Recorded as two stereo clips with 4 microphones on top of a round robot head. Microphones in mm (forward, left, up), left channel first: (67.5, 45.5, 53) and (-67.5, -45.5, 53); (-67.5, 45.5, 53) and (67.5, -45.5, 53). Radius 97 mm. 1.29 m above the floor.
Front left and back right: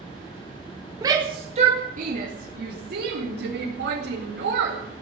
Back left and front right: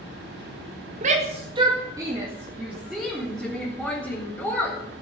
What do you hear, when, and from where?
1.0 s a shout: 75° right, 1.9 m; by 4.8 s 135° right, 5 m